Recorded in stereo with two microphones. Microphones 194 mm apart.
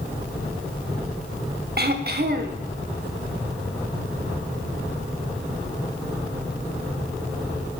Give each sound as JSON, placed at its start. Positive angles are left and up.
{"t": 1.8, "sound": "throat clearing", "side_deg": -55, "distance_m": 0.8}